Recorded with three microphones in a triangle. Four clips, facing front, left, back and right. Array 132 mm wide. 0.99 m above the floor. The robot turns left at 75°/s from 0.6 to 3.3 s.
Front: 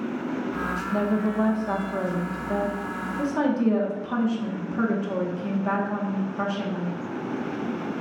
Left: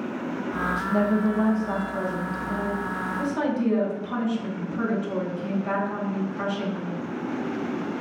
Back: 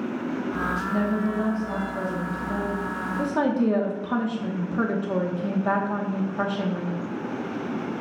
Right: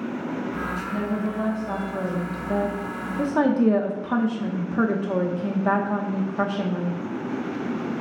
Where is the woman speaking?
65° left, 1.1 m; by 7.0 s 115° right, 1.1 m.